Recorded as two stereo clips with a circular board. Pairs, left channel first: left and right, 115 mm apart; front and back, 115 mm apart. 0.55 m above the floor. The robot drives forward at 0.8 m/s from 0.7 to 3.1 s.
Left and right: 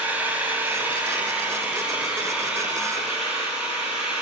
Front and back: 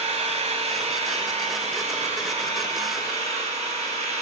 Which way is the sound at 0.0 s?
165° right.